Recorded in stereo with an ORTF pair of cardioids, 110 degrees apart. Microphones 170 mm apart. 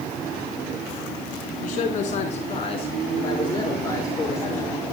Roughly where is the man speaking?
Ahead left.